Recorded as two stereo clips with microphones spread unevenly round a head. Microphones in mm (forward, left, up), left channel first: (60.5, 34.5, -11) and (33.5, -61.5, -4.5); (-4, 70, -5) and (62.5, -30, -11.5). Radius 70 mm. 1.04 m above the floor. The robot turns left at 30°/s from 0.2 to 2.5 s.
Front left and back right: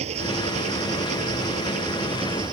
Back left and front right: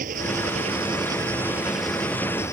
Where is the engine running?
95° right; by 2.5 s 165° right.